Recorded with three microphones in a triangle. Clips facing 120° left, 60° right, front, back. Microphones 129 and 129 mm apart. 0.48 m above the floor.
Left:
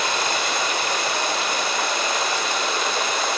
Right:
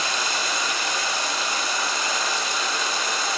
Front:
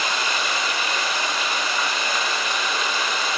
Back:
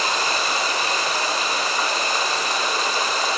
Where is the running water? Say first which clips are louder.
Left 4 dB, back 2 dB; 130° left, 1.0 m.